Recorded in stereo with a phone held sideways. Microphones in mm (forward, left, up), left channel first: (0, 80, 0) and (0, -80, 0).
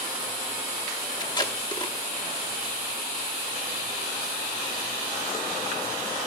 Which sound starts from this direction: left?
Tape being pulled, at 1.2 s.